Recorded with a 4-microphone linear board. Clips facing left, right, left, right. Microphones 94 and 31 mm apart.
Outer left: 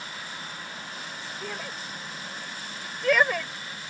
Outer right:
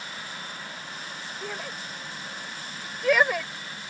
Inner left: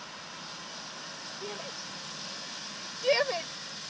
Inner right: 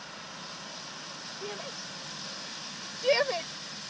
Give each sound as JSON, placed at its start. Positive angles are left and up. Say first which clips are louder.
{"t": 1.4, "sound": "a shout", "louder": "outer right 1 dB, inner right 1 dB", "side_deg": -5}